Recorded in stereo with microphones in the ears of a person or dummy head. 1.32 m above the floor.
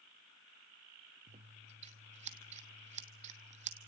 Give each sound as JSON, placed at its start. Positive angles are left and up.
{"t": 1.3, "sound": "scissors", "side_deg": -40, "distance_m": 1.0}